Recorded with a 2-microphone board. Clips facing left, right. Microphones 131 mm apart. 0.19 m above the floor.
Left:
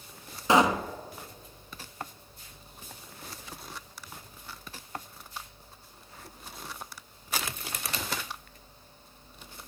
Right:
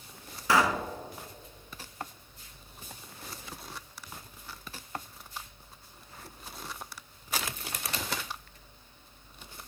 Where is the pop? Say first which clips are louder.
Left 3 dB; 20° left (ahead or behind), 0.7 m.